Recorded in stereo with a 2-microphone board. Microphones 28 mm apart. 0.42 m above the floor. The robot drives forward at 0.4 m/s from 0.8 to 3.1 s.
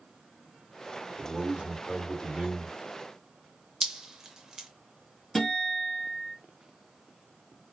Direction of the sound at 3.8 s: 20° right (ahead or behind).